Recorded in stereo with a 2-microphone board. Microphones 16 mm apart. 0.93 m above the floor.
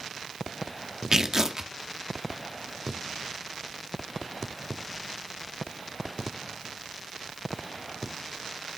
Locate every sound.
1.1 s tearing paper: 35° right (ahead or behind), 0.7 m